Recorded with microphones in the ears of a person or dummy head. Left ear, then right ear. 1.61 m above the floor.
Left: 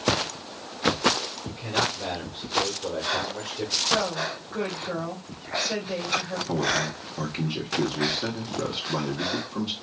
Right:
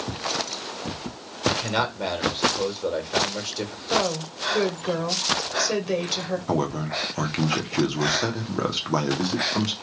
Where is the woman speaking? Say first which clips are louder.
Right 1 dB; 85° right, 1.7 m.